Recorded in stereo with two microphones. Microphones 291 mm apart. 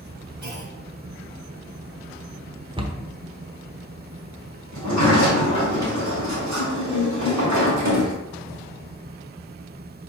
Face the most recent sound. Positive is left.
turn(degrees=-70)  # may be behind; listen again after turning